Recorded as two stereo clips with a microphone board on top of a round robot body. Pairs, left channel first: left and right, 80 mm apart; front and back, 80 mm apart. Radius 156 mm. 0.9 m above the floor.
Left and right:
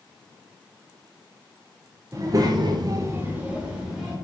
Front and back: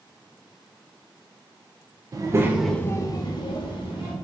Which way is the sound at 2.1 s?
140° right.